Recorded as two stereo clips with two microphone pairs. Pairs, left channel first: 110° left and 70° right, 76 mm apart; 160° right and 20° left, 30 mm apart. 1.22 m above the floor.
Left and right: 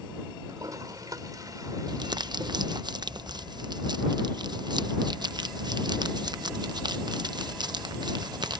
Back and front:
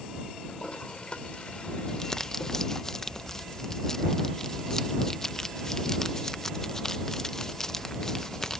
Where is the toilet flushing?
105° right.